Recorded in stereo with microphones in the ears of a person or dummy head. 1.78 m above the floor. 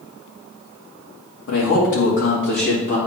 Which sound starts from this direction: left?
A man speaking, at 1.5 s.